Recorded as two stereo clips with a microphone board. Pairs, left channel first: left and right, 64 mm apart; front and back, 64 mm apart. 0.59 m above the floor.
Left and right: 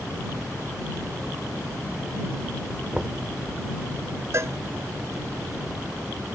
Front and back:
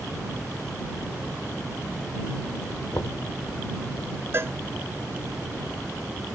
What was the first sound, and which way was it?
Knocking, 10° right.